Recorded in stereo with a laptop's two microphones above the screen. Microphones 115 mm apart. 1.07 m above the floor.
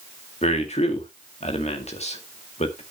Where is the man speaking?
70° left (ahead or behind), 1.9 m.